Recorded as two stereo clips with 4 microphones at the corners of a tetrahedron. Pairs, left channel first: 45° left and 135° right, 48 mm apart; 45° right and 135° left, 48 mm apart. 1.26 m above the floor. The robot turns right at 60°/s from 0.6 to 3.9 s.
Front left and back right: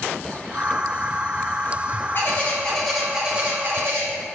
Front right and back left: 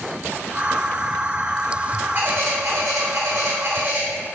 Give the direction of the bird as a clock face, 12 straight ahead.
9 o'clock.